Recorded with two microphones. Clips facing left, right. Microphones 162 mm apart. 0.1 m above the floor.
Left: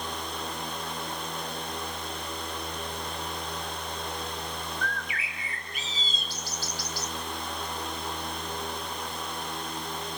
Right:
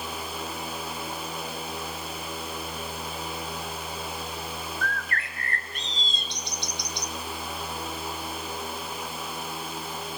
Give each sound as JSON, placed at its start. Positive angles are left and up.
{"t": 4.8, "sound": "a bird", "side_deg": 5, "distance_m": 0.9}